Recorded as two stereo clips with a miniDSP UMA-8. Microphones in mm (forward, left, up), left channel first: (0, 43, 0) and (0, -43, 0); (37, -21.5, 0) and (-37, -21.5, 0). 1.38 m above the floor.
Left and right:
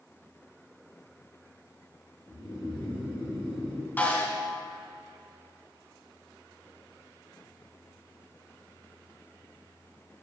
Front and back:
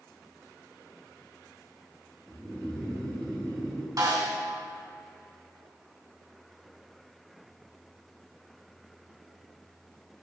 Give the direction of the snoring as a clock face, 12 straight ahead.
10 o'clock.